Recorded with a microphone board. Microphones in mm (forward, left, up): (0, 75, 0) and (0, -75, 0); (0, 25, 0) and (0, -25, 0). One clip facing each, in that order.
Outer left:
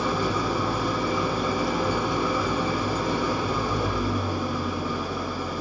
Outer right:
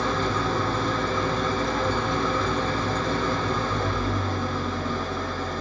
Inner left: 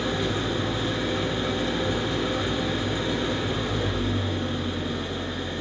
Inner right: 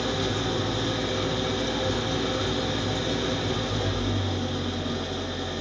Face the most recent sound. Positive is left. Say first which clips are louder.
# even, inner left 1 dB
turn(degrees=10)  # may be behind; listen again after turning